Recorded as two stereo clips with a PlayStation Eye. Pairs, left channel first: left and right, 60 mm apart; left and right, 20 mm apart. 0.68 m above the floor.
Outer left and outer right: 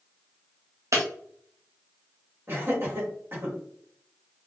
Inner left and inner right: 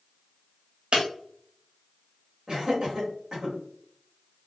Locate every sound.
0.9 s breaking glass: 55° right (ahead or behind), 0.9 m
2.5 s laughter: 45° right (ahead or behind), 1.4 m